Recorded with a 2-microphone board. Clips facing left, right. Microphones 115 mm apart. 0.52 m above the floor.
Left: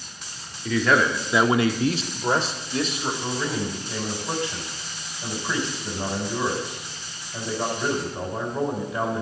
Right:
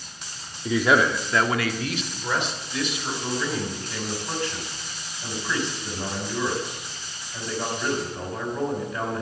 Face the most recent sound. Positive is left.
turn(degrees=20)  # may be behind; listen again after turning